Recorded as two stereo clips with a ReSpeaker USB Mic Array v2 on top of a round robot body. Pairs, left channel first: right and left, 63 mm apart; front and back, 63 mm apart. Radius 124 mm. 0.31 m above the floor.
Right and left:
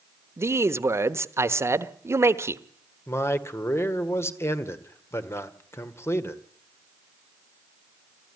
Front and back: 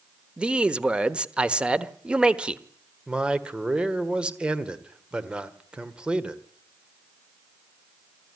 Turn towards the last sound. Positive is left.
turn(degrees=-110)